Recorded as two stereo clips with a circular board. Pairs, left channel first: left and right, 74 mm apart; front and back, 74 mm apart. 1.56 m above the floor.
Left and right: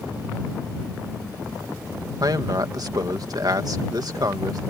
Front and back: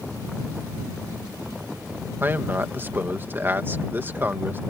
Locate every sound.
2.2 s a man speaking: 120° right